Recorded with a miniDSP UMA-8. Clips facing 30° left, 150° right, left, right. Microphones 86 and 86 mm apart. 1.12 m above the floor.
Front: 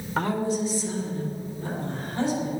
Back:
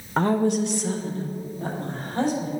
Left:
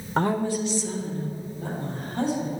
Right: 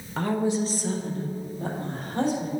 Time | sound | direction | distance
0.2 | a woman speaking | 145° left | 0.5 m